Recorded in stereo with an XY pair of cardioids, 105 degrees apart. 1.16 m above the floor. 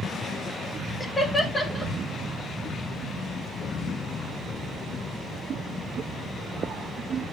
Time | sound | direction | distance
1.0 | laughter | 15° left | 3.5 m